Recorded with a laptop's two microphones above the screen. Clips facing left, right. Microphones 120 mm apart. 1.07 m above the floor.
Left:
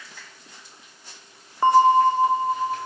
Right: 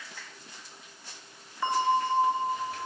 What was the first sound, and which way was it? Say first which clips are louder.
A bell: left 11 dB; 45° left (ahead or behind).